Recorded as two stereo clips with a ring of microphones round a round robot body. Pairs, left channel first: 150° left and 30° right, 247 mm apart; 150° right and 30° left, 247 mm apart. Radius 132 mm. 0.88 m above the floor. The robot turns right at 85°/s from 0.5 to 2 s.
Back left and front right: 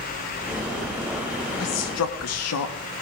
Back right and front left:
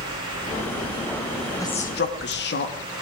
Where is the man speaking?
130° left, 1.4 m; by 2.8 s 165° left, 1.4 m.